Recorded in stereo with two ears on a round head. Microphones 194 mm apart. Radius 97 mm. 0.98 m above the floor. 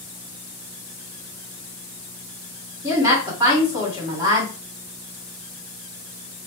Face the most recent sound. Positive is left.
turn(degrees=-15)  # may be behind; listen again after turning